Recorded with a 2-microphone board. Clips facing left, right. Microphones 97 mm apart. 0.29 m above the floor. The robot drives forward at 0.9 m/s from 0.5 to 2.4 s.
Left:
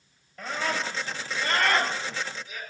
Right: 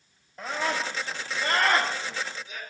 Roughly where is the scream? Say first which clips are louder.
Right 1 dB; right.